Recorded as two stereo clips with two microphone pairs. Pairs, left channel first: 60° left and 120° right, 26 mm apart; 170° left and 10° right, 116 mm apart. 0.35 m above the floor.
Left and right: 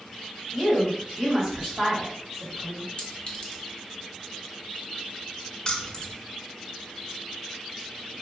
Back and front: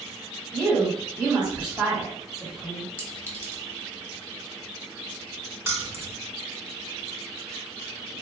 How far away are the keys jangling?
About 0.5 m.